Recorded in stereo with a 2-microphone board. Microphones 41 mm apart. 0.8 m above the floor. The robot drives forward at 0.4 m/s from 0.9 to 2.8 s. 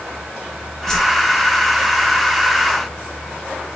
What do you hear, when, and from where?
0.9 s a whoosh: 10° left (ahead or behind), 2.5 m